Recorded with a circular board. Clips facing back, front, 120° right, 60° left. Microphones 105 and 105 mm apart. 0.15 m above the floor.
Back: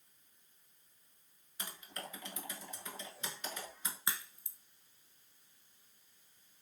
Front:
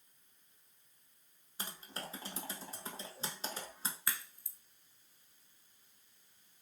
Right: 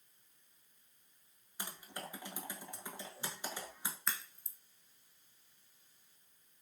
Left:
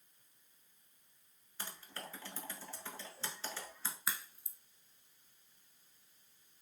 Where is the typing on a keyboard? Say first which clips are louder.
Front 1 dB, right 2 dB; 50° right, 0.8 m.